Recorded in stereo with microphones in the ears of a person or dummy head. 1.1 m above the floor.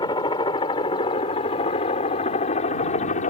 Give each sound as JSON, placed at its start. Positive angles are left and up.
{"t": 0.0, "sound": "a helicopter", "side_deg": 20}